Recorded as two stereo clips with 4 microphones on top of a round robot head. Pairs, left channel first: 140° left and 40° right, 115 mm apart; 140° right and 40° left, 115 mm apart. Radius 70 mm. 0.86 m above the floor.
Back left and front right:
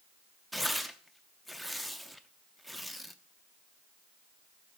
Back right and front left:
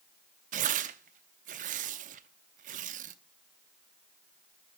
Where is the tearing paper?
50° left, 0.7 m.